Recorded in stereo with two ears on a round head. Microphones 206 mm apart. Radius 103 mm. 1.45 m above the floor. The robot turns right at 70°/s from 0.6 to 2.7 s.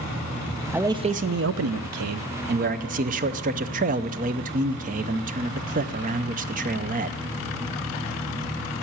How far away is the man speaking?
About 0.5 m.